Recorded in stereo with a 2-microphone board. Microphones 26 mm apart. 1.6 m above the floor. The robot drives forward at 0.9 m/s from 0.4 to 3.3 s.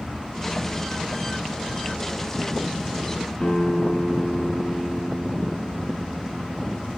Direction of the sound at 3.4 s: 25° left (ahead or behind).